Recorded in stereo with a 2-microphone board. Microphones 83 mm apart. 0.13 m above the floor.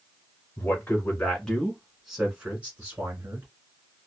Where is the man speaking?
30° left (ahead or behind), 1.5 m; by 3.5 s 35° right (ahead or behind), 1.6 m.